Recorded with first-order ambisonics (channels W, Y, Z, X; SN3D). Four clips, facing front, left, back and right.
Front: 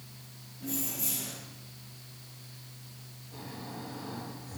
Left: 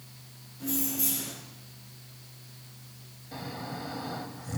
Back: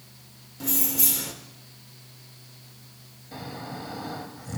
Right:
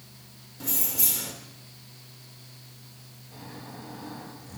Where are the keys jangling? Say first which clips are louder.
Right 1 dB, back 8 dB; 150° right, 1.5 m.